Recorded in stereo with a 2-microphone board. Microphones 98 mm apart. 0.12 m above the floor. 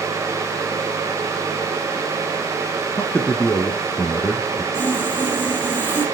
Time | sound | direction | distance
3.0 | a man speaking | 15° left (ahead or behind) | 1.3 m
4.7 | sawing | 25° left (ahead or behind) | 4.5 m